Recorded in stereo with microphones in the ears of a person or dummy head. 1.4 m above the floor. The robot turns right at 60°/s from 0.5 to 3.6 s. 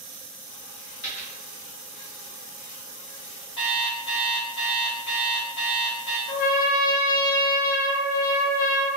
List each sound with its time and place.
1.0 s a dropped coin: 35° left (ahead or behind), 1.6 m; by 1.3 s 30° left (ahead or behind), 1.6 m
3.6 s an alarm clock: 20° left (ahead or behind), 0.6 m
6.3 s a trumpet: 45° left (ahead or behind), 0.7 m